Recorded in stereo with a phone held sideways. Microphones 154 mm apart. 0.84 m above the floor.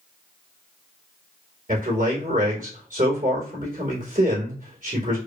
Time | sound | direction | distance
1.7 | a man speaking | 55° right (ahead or behind) | 2.5 m